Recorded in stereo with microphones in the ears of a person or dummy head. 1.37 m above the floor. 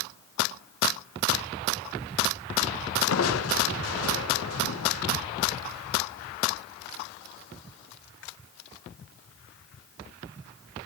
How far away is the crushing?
About 1.3 m.